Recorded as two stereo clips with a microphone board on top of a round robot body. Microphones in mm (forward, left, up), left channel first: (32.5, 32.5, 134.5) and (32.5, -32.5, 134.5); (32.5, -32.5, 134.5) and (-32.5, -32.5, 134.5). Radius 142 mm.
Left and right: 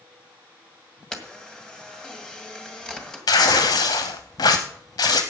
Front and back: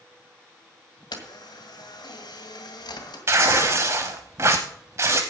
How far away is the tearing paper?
About 0.5 m.